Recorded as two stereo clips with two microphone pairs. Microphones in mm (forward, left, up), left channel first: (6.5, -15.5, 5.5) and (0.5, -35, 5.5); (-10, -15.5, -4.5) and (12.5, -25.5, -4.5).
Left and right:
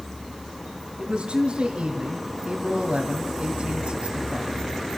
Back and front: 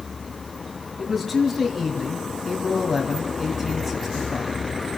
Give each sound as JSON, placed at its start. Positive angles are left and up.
{"t": 1.0, "sound": "a man speaking", "azimuth_deg": -115, "distance_m": 2.0}